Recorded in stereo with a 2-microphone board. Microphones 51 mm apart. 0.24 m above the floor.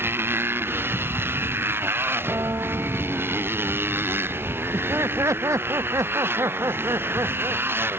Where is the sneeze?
I don't hear a sneeze.